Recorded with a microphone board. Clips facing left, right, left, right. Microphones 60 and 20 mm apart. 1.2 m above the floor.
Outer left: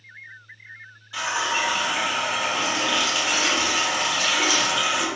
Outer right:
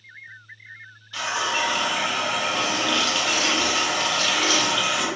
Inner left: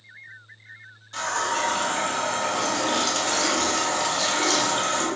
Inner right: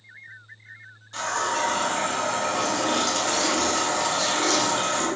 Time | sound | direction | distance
1.1 | a running tap | 10° left (ahead or behind) | 0.5 m